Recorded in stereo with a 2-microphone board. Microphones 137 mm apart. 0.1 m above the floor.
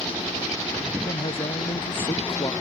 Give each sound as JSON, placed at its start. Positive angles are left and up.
{"t": 1.0, "sound": "a man speaking", "side_deg": 45}